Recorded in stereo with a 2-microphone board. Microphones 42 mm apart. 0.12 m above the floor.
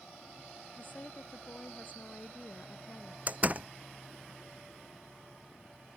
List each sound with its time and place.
0.8 s a woman speaking: 40° left (ahead or behind); by 3.2 s 35° left (ahead or behind)
3.3 s a door slam: 35° right (ahead or behind)